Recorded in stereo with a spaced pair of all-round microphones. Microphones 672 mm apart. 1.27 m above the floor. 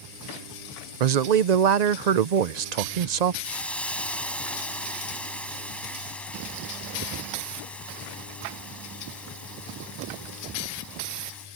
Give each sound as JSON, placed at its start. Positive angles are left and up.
{"t": 1.0, "sound": "a man speaking", "side_deg": -80}
{"t": 3.4, "sound": "a hiss", "side_deg": 0}